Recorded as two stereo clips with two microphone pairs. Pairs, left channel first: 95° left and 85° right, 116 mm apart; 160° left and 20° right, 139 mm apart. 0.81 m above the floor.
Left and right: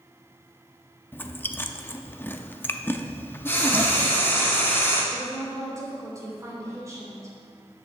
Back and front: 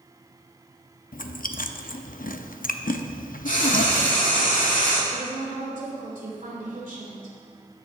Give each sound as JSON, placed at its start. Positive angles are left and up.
{"t": 1.1, "sound": "chewing", "azimuth_deg": 165, "distance_m": 0.5}
{"t": 3.5, "sound": "frying", "azimuth_deg": 165, "distance_m": 2.0}
{"t": 5.1, "sound": "a woman speaking", "azimuth_deg": -20, "distance_m": 3.0}